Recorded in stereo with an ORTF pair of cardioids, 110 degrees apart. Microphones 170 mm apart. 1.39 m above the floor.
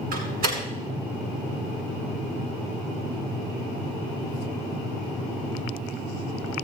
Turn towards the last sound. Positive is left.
turn(degrees=-65)